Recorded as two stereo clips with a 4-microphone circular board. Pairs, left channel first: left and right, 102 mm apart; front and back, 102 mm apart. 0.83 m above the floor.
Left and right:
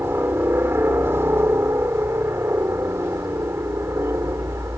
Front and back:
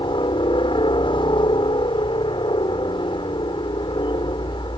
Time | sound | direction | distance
0.0 | a helicopter | 25° right | ?